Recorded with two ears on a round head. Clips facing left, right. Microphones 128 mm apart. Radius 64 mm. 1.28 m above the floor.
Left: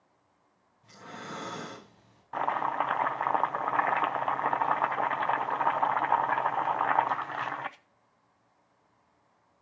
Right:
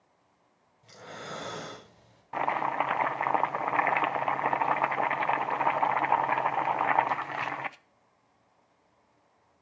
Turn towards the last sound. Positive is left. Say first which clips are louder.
# right 1 dB
turn(degrees=-10)  # may be behind; listen again after turning